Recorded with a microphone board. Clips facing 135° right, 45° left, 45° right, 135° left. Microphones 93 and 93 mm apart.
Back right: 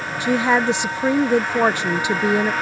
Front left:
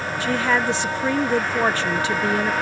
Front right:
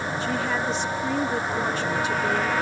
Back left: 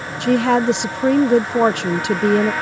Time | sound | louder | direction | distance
0.2 | a woman speaking | back right 4 dB, back left 13 dB | 155° left | ?